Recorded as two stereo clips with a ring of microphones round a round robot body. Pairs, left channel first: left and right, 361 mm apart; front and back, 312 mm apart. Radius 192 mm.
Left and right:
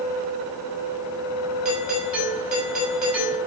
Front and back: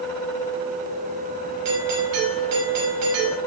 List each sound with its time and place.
1.6 s a doorbell: 135° right, 5 m